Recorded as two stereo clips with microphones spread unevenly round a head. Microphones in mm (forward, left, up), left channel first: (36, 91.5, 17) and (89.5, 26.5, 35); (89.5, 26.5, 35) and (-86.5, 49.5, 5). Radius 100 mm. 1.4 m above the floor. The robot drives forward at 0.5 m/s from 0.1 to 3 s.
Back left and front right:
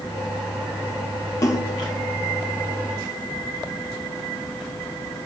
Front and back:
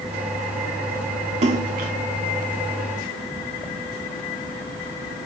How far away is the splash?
About 1.0 m.